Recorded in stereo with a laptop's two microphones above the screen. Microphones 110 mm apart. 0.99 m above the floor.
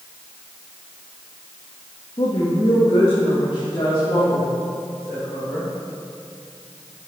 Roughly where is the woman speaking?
Left.